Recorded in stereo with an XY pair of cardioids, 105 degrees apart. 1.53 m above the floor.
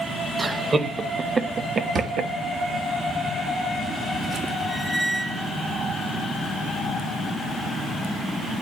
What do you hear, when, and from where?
0.4 s laughter: 30° right, 2 m; by 2.3 s 70° right, 0.9 m
1.9 s a drawer: 55° right, 2 m
4.7 s a squeak: straight ahead, 1.1 m